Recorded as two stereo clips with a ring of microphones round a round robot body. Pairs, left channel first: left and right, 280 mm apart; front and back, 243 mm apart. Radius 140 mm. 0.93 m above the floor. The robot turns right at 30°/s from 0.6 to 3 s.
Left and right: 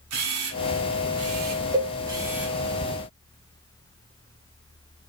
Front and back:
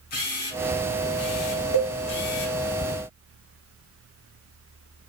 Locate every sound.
0.1 s a camera shutter: 60° right, 1.7 m; by 2.6 s straight ahead, 1.7 m
1.7 s a cowbell: 15° right, 2 m; by 1.9 s 5° right, 2 m